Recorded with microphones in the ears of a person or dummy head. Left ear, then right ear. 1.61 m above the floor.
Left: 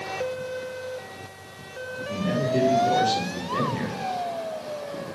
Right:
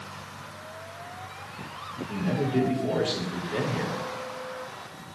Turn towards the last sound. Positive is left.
turn(degrees=-35)  # may be behind; listen again after turning